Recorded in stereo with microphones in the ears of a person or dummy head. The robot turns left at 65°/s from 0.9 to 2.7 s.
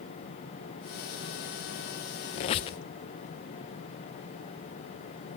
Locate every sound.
2.4 s a squeak: 35° left (ahead or behind), 0.6 m; by 2.8 s 30° left (ahead or behind), 0.6 m